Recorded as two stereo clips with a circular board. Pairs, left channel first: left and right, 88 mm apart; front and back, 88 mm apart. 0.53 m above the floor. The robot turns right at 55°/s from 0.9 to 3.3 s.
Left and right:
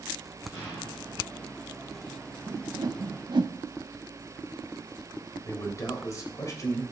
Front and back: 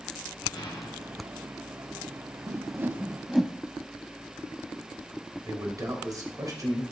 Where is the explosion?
40° left, 6 m; by 1.4 s 65° left, 6 m.